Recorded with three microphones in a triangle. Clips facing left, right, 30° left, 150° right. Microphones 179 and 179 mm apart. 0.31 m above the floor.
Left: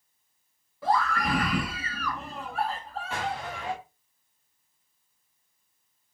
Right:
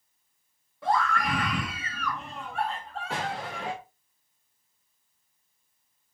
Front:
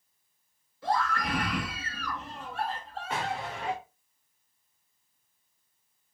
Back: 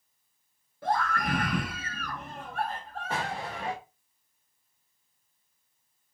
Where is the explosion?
90° right, 6.5 m.